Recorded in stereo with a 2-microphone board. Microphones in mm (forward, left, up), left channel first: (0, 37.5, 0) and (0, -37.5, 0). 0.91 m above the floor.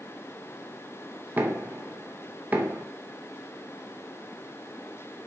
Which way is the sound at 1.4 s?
25° right (ahead or behind).